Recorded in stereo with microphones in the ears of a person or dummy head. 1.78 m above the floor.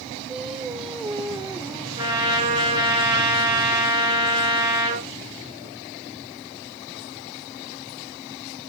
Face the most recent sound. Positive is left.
turn(degrees=-20)  # may be behind; listen again after turning